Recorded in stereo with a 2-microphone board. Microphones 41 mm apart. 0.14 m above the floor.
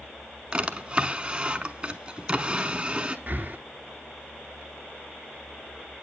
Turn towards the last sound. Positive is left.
turn(degrees=-40)  # may be behind; listen again after turning